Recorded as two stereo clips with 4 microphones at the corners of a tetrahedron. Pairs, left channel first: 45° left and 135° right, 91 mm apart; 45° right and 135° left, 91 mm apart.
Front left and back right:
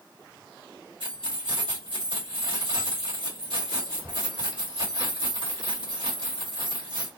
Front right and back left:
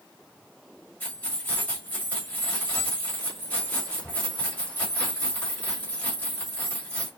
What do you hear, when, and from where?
1.0 s keys jangling: 115° right, 2 m